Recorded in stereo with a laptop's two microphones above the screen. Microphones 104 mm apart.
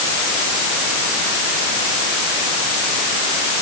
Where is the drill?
No drill in this recording.